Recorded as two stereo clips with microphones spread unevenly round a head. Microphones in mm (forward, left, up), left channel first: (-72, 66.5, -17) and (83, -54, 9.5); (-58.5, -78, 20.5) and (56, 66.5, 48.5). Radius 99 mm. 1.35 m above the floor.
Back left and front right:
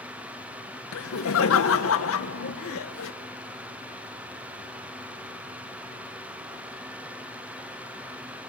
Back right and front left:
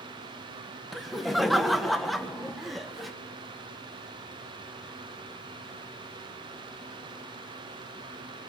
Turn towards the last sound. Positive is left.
turn(degrees=145)